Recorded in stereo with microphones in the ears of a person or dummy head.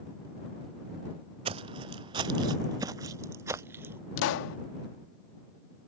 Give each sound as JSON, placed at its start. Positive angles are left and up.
{"t": 1.4, "sound": "footsteps", "side_deg": -35}
{"t": 4.2, "sound": "a pop", "side_deg": 70}